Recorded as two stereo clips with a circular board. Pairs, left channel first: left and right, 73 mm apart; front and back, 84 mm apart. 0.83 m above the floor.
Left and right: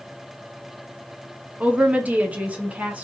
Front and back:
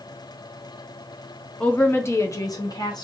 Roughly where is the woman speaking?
Ahead right.